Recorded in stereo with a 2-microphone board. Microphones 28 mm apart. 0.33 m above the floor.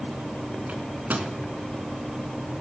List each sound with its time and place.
0.7 s a microwave: 75° right (ahead or behind), 2.5 m